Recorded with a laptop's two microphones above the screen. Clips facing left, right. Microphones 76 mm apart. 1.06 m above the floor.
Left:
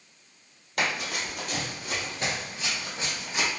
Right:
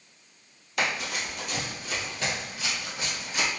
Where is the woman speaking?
I don't hear a woman speaking.